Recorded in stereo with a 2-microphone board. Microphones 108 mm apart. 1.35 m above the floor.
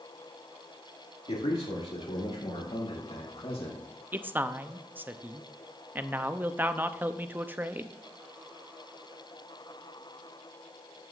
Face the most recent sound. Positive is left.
turn(degrees=-15)  # may be behind; listen again after turning